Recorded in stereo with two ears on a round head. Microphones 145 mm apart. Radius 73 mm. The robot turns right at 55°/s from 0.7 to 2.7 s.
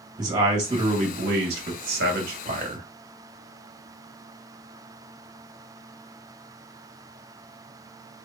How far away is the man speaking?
About 1.8 m.